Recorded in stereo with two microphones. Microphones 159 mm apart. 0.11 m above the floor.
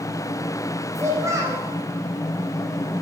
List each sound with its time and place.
0.9 s a child speaking: 20° right (ahead or behind), 4.5 m